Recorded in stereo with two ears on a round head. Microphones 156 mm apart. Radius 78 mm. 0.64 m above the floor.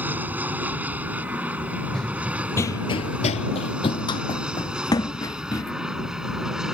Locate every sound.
0.0 s an aircraft: 10° right (ahead or behind); by 6.7 s 5° right (ahead or behind)
1.9 s running footsteps: centre (ahead or behind); by 5.7 s 20° left (ahead or behind)